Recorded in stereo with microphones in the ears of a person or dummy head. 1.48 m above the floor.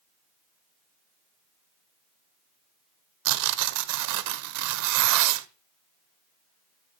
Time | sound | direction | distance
3.2 | tearing paper | 65° right (ahead or behind) | 0.6 m